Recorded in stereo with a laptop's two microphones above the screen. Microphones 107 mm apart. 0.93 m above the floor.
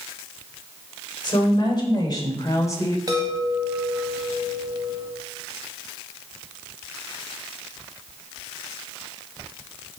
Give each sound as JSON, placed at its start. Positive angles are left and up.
{"t": 1.2, "sound": "a woman speaking", "side_deg": 45, "distance_m": 4.0}
{"t": 3.1, "sound": "a chime", "side_deg": -35, "distance_m": 1.8}